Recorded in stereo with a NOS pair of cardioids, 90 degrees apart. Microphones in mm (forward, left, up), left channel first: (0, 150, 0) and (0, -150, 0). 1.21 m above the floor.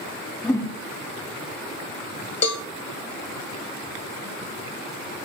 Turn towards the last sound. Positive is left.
turn(degrees=65)